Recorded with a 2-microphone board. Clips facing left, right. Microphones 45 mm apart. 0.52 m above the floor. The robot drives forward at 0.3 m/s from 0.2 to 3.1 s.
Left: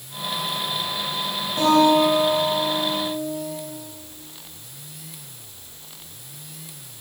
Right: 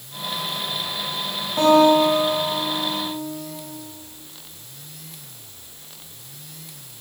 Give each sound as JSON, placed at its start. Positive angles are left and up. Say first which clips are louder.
{"t": 1.6, "sound": "a guitar", "louder": "right 2 dB", "side_deg": -30, "distance_m": 3.5}